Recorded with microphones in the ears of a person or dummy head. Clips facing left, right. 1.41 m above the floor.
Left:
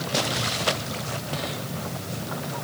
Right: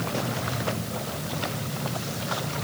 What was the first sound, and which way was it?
Only background noise.